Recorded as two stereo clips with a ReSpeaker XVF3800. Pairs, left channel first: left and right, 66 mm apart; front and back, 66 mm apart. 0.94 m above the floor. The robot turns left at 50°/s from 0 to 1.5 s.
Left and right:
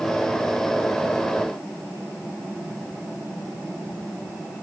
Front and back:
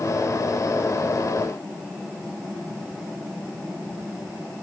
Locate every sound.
Only background noise.